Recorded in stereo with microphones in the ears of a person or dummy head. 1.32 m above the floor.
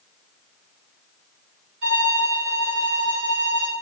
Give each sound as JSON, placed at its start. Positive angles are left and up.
{"t": 1.8, "sound": "a violin", "side_deg": -70, "distance_m": 4.5}